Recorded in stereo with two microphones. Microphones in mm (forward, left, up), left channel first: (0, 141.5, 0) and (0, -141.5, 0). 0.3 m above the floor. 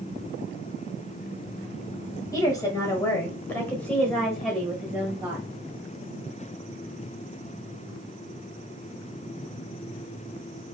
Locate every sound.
2.3 s a woman speaking: 15° left (ahead or behind), 1.8 m; by 5.5 s 5° right (ahead or behind), 1.7 m